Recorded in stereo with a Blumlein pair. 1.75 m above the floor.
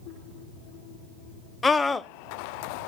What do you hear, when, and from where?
1.6 s a scream: 15° left, 0.6 m